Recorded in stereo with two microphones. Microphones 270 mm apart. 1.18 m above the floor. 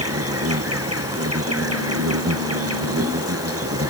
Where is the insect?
60° right (ahead or behind).